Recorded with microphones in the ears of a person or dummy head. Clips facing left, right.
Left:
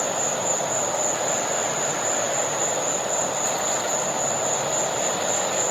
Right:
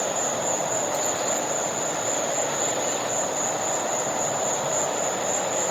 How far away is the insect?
About 1.3 m.